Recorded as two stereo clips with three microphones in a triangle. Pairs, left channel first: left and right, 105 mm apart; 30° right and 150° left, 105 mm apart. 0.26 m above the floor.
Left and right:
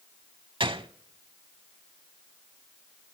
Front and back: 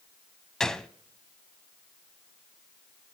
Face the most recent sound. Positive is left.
turn(degrees=-115)